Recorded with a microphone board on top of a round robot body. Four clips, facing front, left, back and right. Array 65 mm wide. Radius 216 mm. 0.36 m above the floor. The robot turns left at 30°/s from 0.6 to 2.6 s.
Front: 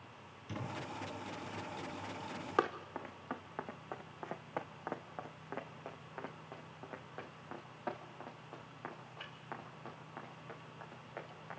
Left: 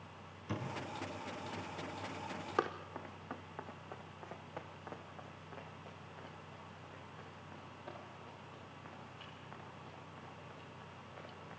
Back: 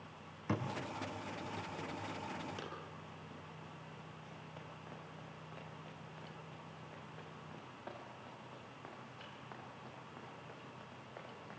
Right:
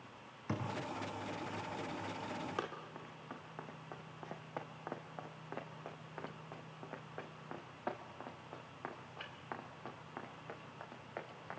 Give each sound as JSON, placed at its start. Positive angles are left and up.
{"t": 0.5, "sound": "a thud", "azimuth_deg": -155, "distance_m": 9.0}
{"t": 2.6, "sound": "running footsteps", "azimuth_deg": 20, "distance_m": 2.5}